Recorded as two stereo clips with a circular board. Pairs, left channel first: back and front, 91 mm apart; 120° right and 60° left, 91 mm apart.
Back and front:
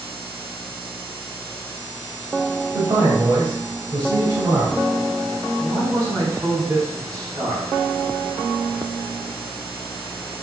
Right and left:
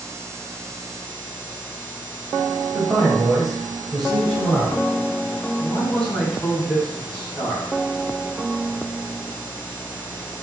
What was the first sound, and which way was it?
A man speaking, 25° right.